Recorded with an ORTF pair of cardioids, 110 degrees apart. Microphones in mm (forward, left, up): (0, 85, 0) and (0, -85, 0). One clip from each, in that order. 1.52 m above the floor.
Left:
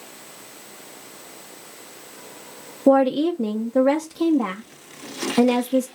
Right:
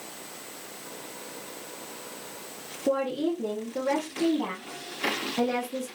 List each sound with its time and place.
2.9 s a woman speaking: 50° left, 0.9 m